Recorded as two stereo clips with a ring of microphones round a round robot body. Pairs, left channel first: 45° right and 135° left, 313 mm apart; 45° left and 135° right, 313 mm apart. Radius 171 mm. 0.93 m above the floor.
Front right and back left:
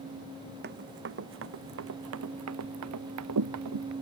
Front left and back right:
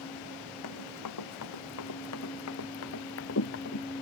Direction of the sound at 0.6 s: 75° left.